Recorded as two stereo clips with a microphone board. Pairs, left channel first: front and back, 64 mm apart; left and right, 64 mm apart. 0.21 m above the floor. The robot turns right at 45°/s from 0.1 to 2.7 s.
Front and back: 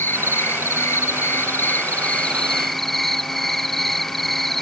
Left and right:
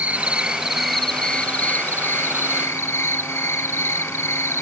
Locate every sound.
0.0 s an insect: 35° right; by 4.6 s 85° left